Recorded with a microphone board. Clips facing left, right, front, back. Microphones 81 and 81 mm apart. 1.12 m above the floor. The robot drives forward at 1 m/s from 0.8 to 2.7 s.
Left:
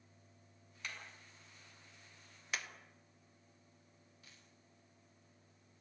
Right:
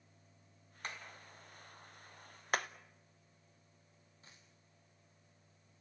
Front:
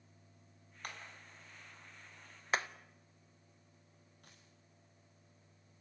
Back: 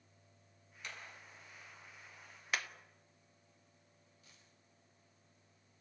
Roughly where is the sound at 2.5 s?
Ahead right.